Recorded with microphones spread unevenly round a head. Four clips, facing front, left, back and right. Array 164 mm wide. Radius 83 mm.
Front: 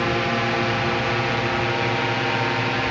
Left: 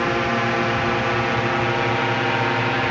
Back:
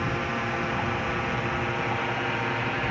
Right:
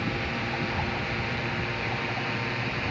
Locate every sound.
0.0 s a drone: 55° left; by 2.9 s 65° left